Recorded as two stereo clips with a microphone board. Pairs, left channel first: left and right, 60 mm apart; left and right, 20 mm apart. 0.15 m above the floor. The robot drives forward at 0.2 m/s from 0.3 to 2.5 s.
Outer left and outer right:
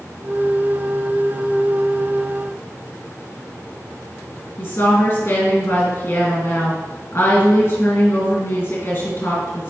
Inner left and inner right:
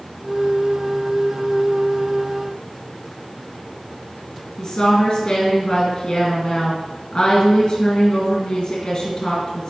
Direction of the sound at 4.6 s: 50° left (ahead or behind).